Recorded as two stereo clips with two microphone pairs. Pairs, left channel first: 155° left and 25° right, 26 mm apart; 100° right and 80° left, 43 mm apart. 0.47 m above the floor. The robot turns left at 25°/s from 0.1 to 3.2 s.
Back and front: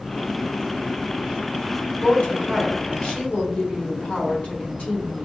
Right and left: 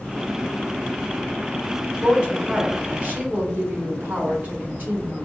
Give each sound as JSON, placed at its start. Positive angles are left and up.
{"t": 2.0, "sound": "a woman speaking", "azimuth_deg": 150, "distance_m": 1.6}